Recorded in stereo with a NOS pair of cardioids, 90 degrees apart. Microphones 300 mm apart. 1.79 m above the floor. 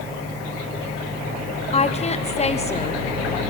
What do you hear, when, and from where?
1.7 s a woman speaking: 25° left, 1.0 m